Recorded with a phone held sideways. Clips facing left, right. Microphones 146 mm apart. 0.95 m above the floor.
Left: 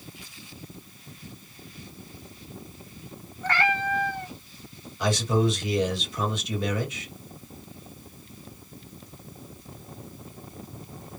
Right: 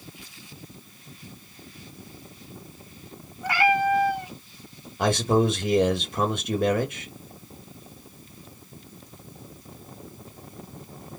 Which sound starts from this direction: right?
A man speaking, at 5.0 s.